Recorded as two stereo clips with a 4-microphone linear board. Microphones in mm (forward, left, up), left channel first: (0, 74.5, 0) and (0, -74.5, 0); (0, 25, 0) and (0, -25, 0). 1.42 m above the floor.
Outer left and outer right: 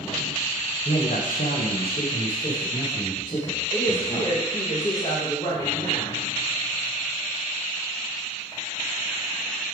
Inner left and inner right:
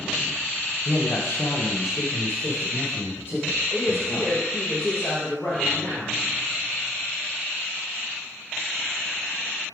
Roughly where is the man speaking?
Left.